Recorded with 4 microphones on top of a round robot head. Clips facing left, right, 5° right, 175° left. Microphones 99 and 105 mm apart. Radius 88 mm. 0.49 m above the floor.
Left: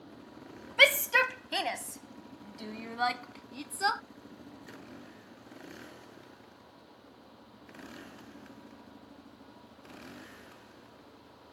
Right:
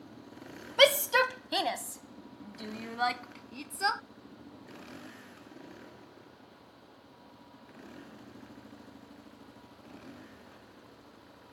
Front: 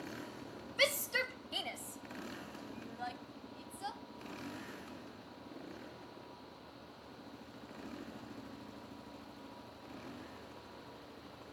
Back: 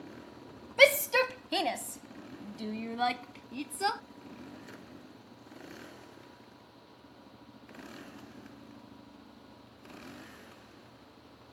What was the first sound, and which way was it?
A shout, 155° right.